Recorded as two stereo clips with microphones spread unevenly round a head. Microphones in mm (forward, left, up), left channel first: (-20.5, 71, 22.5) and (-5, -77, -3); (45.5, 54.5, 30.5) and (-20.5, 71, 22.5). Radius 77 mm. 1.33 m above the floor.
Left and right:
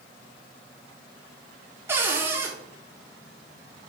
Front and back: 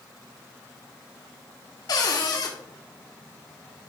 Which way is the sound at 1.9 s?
5° right.